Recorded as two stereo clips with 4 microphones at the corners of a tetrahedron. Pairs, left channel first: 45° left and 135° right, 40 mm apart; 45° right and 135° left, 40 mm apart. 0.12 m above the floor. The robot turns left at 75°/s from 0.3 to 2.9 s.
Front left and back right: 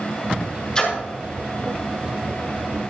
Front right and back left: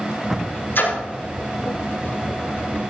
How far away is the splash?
About 5.5 m.